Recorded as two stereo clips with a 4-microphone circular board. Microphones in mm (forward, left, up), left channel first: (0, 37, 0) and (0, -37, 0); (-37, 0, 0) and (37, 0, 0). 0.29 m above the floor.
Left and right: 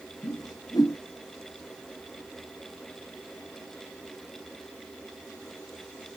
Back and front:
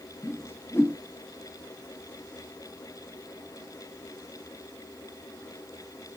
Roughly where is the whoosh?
Behind left.